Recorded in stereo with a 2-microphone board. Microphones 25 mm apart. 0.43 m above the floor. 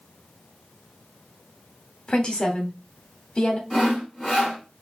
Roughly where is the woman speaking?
Left.